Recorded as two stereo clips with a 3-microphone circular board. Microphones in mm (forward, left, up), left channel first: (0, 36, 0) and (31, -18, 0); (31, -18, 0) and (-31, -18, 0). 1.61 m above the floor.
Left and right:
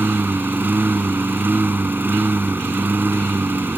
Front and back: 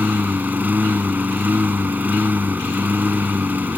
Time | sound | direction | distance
0.0 | a lawn mower | 120° right | ?